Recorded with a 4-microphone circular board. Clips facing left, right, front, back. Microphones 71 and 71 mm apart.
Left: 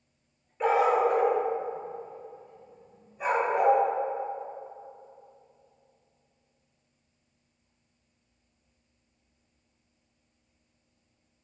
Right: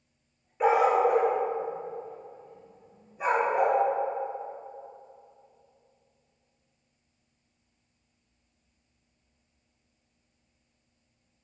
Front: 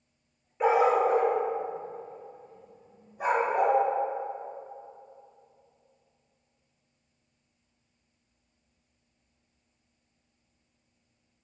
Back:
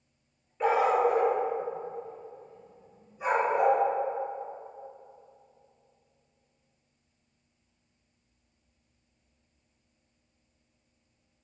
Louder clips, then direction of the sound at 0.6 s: Right 1 dB, front 1 dB; 40° right.